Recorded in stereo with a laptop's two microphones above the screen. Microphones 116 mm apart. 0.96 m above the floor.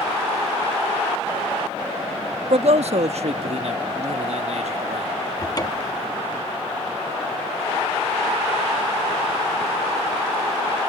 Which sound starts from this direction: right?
A man speaking, at 2.5 s.